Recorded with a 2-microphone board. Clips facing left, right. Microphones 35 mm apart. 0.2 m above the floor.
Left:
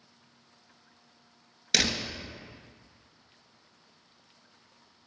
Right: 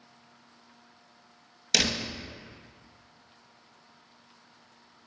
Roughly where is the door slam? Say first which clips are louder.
Even; centre.